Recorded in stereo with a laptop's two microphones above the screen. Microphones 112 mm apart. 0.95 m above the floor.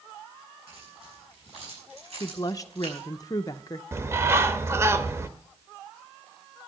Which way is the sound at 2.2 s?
35° left (ahead or behind).